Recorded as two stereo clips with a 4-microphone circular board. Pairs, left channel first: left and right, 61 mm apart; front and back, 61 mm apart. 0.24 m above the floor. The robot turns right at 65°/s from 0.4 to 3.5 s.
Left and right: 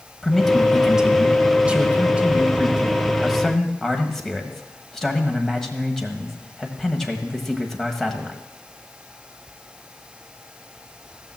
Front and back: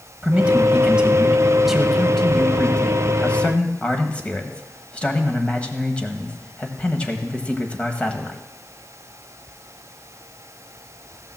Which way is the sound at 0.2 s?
175° left.